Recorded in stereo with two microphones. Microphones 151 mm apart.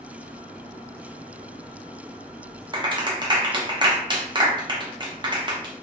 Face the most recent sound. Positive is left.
turn(degrees=-30)  # may be behind; listen again after turning